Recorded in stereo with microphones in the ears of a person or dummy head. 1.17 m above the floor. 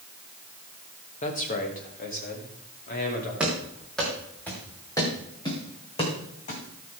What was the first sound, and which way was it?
A man speaking, 40° left (ahead or behind).